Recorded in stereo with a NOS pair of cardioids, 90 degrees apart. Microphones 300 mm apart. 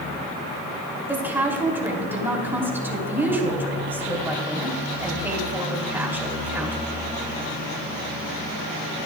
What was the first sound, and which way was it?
A woman speaking, 5° right.